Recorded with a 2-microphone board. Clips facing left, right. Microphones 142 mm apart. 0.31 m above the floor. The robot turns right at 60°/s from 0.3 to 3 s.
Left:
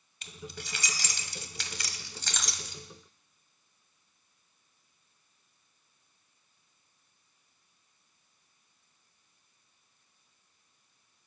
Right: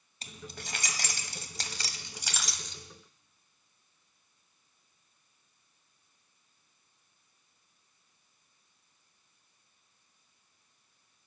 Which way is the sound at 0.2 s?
35° right (ahead or behind).